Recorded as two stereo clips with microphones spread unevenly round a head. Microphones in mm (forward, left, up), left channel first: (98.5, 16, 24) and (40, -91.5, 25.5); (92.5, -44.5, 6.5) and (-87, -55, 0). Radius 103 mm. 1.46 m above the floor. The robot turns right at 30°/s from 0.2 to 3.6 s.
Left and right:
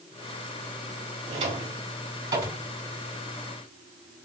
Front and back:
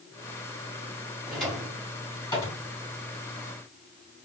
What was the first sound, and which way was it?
A drawer, 90° right.